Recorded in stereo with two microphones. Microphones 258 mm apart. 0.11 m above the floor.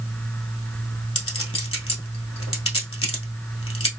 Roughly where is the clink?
Left.